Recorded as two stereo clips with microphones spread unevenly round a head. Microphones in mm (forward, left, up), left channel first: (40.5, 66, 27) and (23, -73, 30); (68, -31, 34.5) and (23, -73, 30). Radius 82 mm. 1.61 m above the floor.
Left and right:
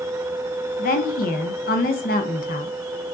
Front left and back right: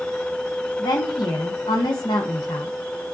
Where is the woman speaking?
70° left, 1.0 m.